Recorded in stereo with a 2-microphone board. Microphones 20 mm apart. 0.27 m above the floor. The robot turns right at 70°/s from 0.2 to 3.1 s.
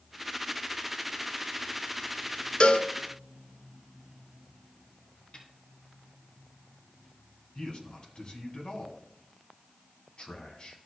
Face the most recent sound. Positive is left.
turn(degrees=45)  # may be behind; listen again after turning